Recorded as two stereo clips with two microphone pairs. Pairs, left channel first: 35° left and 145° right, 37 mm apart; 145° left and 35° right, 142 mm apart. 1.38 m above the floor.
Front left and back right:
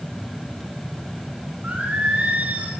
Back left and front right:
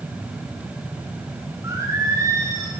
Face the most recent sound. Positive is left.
turn(degrees=-100)